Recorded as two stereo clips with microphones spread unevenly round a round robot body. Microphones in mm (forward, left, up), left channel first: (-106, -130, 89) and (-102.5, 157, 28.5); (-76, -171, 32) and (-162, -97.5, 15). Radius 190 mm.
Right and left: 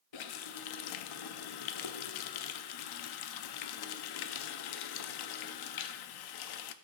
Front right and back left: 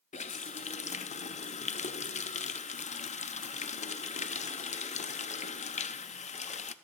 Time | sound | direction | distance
0.1 | a running tap | 65° right | 0.5 m